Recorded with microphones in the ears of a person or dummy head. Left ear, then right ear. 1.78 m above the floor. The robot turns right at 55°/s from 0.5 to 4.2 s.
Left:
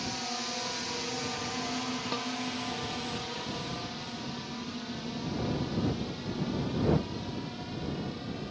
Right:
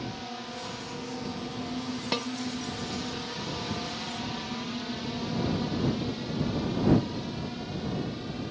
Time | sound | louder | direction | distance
0.0 | a drone | left 3 dB | 70° left (ahead or behind) | ?
2.1 | a snare drum | right 7 dB | 15° right (ahead or behind) | ?